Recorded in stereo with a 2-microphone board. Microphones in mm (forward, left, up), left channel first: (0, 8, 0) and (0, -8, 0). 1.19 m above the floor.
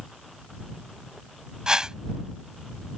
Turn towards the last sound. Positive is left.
turn(degrees=-45)  # may be behind; listen again after turning